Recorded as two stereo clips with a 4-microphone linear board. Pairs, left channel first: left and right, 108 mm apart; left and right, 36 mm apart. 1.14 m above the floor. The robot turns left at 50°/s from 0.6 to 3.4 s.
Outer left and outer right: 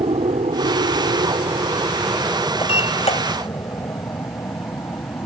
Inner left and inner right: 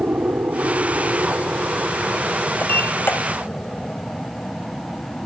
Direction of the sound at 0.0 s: 65° right (ahead or behind).